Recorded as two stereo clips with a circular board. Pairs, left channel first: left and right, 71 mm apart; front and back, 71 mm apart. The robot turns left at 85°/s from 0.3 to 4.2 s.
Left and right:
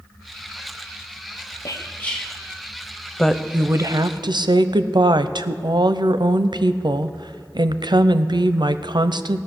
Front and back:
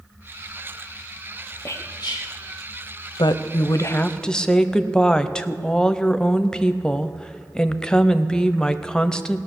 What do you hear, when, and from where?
1.6 s whispering: 55° left, 0.6 m; by 2.3 s straight ahead, 0.6 m
3.2 s a woman speaking: 5° left, 0.6 m; by 9.4 s 80° right, 0.6 m